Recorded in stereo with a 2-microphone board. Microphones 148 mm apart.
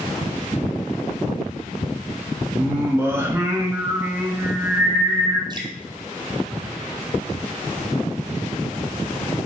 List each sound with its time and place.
2.6 s singing: 15° right (ahead or behind), 1.4 m
5.5 s dripping: 30° right (ahead or behind), 1.1 m